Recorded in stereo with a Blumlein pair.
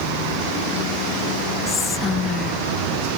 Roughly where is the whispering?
Ahead.